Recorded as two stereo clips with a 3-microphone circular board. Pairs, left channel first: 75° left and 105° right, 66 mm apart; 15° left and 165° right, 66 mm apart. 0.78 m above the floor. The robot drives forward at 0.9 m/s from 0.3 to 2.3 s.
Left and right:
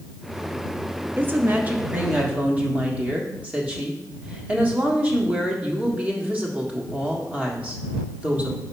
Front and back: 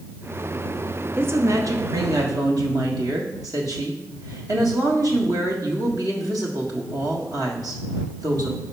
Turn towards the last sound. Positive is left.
turn(degrees=-170)